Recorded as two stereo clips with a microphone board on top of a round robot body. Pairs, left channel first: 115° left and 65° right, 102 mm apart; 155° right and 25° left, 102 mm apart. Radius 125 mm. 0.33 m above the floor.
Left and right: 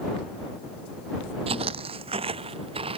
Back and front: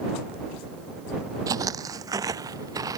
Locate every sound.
1.5 s footsteps: 35° right